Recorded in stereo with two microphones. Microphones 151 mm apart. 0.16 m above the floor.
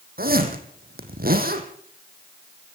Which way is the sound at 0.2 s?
80° right.